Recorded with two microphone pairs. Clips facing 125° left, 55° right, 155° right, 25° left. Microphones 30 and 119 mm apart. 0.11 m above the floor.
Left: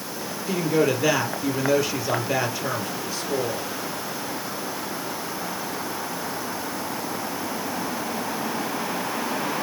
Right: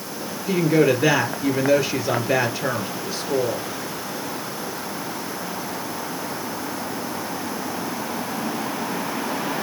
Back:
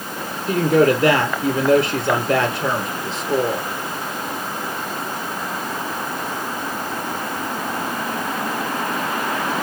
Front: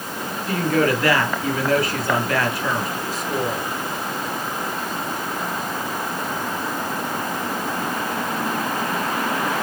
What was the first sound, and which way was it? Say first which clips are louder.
A woman speaking: right 4 dB, back 5 dB; 105° right.